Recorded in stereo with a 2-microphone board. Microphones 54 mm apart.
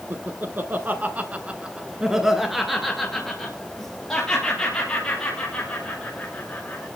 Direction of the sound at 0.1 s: 40° right (ahead or behind).